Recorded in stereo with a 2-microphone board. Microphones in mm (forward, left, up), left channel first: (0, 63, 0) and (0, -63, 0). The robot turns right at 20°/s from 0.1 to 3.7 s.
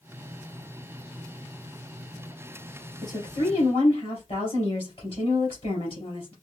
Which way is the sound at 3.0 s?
35° left (ahead or behind).